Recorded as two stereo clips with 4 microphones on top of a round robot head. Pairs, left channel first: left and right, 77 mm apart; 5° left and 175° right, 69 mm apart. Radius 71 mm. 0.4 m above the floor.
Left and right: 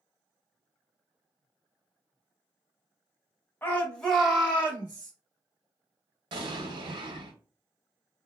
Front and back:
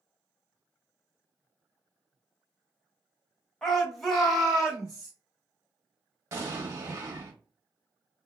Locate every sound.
3.6 s a shout: 80° left, 1.3 m; by 5.1 s 100° right, 1.5 m
6.3 s an explosion: 120° right, 1.1 m